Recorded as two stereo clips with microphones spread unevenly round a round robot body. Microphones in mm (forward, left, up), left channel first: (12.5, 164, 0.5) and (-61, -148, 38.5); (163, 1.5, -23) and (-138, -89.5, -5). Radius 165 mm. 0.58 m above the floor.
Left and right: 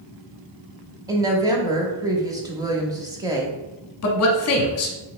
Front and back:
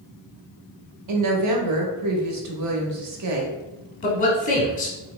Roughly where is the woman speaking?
Behind.